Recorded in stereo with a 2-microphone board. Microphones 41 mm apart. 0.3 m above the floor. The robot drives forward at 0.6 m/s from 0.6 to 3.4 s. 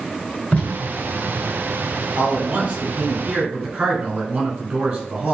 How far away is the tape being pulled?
About 1.3 m.